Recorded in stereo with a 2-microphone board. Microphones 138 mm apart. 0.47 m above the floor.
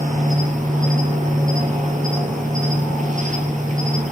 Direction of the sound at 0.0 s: 65° right (ahead or behind).